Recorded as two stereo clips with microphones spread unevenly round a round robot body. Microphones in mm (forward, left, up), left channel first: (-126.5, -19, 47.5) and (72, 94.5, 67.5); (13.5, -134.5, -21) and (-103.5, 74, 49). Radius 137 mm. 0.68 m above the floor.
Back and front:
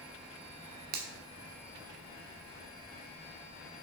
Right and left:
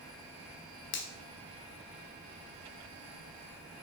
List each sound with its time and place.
0.9 s a finger snap: 25° right, 1.1 m